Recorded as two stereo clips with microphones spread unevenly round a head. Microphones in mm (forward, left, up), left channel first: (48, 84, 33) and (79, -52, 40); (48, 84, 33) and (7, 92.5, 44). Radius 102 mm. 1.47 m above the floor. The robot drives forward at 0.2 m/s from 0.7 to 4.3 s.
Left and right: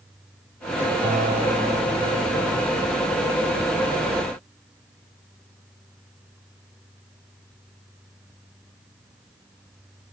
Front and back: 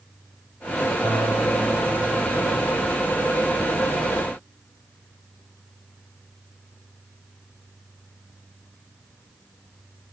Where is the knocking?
I don't hear knocking.